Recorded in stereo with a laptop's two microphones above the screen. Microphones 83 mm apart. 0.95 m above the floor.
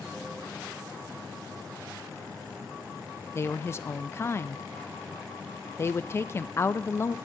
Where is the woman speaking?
35° left (ahead or behind), 0.5 m.